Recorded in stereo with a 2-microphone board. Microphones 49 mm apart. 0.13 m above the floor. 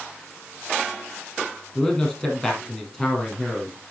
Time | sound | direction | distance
1.8 | a man speaking | 20° left (ahead or behind) | 4.5 m